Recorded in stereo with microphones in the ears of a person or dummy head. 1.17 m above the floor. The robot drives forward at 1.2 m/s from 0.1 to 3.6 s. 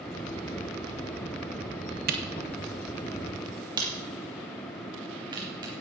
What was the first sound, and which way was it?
A camera shutter, 40° right (ahead or behind).